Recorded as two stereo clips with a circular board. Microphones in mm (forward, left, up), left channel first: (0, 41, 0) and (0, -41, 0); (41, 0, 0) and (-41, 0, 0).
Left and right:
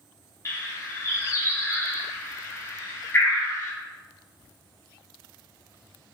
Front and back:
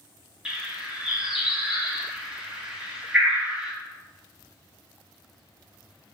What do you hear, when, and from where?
0.5 s a bird: 110° left, 0.6 m